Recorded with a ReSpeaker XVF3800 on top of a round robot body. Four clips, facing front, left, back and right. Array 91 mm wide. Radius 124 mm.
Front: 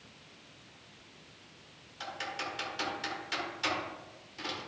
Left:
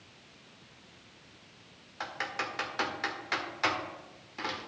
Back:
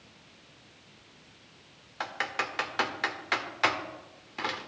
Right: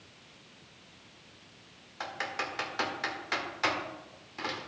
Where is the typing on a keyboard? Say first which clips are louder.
Even, back 6 dB; straight behind, 1.6 m.